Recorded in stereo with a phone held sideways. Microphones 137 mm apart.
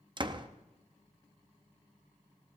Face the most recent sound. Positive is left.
turn(degrees=-35)  # may be behind; listen again after turning